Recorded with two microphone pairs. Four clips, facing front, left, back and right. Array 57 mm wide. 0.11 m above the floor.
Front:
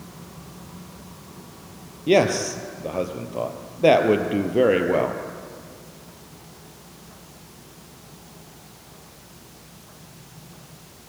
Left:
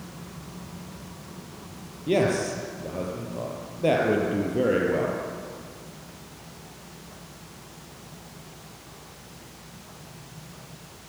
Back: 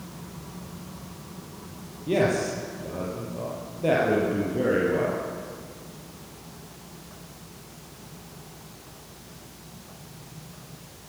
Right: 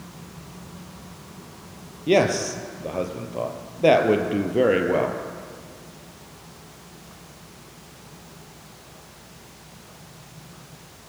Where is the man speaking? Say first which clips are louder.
Right 4 dB, front 5 dB; 40° right, 3 m.